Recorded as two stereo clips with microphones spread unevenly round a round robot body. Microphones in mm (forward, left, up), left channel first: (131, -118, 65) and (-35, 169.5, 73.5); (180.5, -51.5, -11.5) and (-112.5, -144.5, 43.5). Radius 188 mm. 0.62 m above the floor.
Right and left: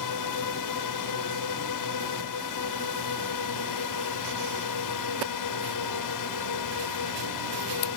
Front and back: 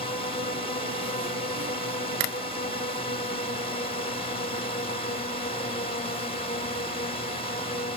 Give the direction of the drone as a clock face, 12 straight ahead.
2 o'clock.